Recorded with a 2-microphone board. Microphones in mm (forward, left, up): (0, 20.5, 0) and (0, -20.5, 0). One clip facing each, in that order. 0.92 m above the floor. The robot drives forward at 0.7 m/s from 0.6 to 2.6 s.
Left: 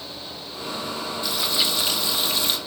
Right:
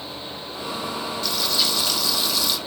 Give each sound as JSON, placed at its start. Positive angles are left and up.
{"t": 1.2, "sound": "frying", "side_deg": 20, "distance_m": 1.9}